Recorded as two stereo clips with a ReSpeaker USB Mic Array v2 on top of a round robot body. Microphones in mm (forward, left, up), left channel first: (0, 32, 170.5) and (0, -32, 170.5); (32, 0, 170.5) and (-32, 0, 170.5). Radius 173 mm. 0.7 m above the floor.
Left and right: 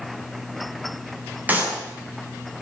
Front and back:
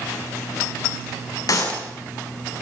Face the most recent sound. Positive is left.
turn(degrees=-25)